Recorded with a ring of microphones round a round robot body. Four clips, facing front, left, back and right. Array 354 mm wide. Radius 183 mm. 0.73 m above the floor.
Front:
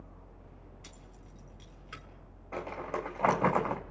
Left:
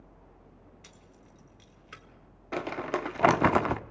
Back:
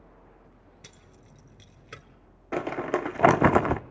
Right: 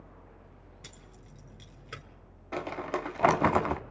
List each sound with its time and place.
0.8 s keys jangling: 140° right, 1.9 m
2.5 s crumpling: 170° left, 1.0 m